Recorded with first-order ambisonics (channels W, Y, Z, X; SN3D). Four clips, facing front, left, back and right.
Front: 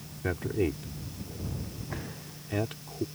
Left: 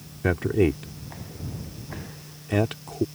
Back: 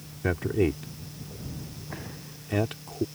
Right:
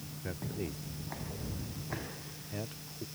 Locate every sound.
0.2 s a man speaking: 105° left